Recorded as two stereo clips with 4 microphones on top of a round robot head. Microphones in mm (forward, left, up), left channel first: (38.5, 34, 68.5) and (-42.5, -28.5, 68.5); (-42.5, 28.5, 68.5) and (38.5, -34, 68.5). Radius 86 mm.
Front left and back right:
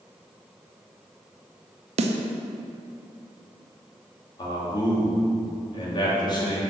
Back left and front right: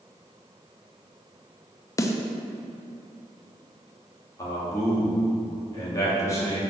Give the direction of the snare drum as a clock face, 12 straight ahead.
5 o'clock.